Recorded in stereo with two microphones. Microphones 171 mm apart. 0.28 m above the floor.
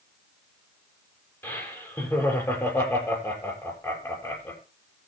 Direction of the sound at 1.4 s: 15° left (ahead or behind).